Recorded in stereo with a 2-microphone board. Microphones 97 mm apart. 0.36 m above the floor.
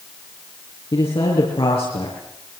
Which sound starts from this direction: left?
A man speaking, at 0.9 s.